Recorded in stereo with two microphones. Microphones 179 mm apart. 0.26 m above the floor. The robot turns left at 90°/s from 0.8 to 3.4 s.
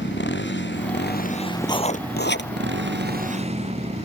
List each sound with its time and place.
0.0 s a motorcycle: 90° left; by 4.1 s 145° right
1.6 s writing: 160° left; by 2.5 s 85° left